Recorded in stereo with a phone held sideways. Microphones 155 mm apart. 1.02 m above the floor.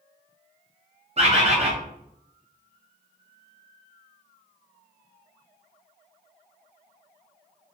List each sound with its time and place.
1.2 s a bird: 40° right (ahead or behind), 0.6 m